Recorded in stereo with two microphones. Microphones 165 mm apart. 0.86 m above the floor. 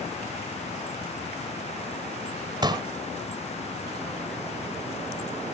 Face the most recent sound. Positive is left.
turn(degrees=-25)  # may be behind; listen again after turning